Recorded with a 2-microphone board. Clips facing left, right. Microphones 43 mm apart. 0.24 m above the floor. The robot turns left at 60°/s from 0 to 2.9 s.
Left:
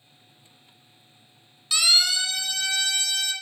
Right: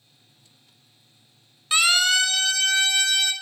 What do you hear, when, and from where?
1.7 s a siren: 35° right (ahead or behind), 2 m; by 3.3 s 50° right (ahead or behind), 3 m